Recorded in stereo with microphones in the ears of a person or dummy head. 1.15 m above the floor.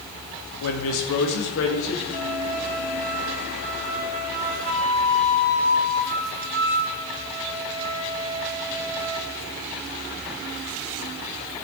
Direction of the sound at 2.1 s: 50° right (ahead or behind).